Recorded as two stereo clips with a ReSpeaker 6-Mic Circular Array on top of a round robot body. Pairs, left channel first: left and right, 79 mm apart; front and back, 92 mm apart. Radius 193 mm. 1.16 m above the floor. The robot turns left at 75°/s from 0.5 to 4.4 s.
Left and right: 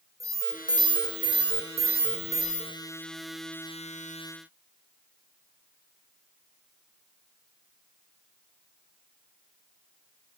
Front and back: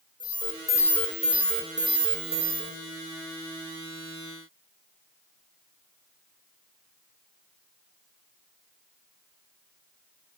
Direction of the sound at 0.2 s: 40° right.